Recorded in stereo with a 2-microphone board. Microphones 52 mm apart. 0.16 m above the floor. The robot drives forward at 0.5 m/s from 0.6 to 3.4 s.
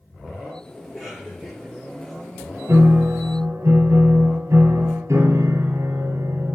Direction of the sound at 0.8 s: 5° right (ahead or behind).